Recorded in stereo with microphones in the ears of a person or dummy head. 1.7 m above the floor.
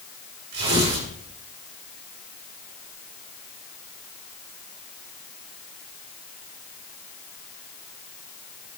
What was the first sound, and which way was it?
Tearing paper, 65° right (ahead or behind).